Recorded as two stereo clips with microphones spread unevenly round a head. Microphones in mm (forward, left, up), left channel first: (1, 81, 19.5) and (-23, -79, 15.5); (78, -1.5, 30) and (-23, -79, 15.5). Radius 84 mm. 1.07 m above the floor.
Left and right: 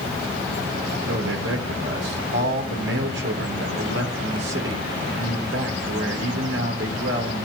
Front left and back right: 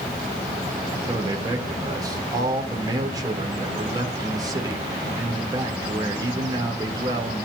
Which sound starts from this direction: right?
A man speaking, at 1.1 s.